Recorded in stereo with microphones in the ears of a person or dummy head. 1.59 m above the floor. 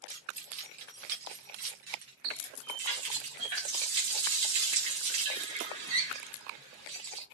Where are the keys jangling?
45° right (ahead or behind), 1.5 m; by 2.1 s 25° right (ahead or behind), 0.6 m.